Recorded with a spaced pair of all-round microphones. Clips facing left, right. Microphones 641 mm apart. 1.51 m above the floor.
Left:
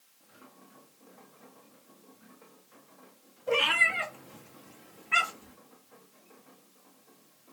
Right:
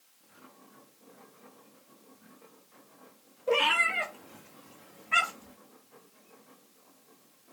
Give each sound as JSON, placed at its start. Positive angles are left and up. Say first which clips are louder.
{"t": 3.5, "sound": "a cat meowing", "louder": "right 2 dB", "side_deg": 20, "distance_m": 1.2}